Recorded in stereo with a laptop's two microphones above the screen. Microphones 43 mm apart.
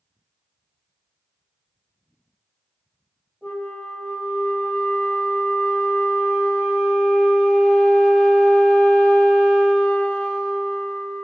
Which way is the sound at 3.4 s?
5° left (ahead or behind).